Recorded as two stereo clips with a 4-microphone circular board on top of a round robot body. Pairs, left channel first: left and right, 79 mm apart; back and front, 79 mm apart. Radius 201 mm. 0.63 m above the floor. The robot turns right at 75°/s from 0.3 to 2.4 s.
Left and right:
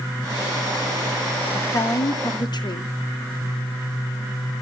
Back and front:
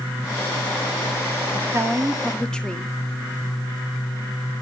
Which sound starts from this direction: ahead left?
A woman speaking, at 1.5 s.